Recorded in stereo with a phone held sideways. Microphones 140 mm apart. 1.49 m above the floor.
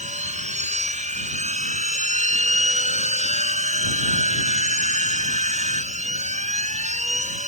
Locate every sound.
0.0 s a machine running: 60° right (ahead or behind)